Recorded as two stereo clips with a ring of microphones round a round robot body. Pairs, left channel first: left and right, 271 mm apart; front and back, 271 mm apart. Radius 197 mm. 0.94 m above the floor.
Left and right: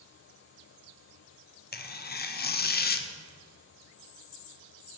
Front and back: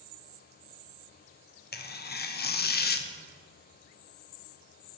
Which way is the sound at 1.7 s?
45° left.